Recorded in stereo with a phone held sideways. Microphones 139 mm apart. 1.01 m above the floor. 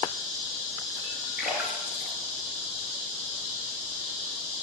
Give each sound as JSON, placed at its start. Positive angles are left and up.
{"t": 1.4, "sound": "a splash", "side_deg": -10, "distance_m": 3.5}